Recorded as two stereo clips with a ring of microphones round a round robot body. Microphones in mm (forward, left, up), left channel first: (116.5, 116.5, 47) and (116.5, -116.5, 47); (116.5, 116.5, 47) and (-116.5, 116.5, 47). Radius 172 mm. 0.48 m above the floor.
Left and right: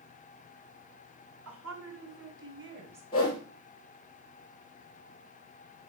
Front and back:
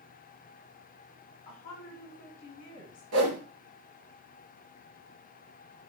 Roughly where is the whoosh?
Behind.